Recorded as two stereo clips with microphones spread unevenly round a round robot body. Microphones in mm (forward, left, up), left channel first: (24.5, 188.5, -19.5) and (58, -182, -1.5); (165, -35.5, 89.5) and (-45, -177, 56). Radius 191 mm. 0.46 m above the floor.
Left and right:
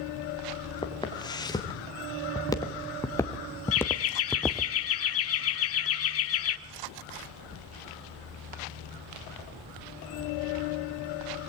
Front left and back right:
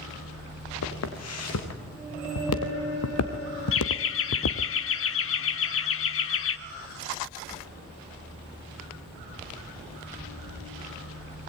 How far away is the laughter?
About 1.2 m.